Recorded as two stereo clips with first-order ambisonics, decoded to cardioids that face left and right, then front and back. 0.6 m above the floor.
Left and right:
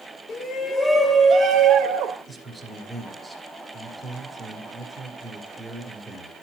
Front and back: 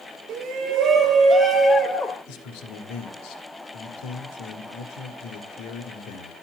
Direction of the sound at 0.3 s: 145° left.